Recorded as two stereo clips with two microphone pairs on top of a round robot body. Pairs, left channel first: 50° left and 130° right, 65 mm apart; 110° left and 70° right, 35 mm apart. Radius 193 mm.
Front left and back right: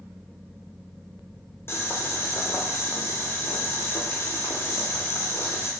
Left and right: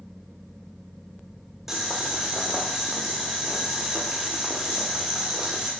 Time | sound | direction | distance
1.7 | boiling | straight ahead | 1.2 m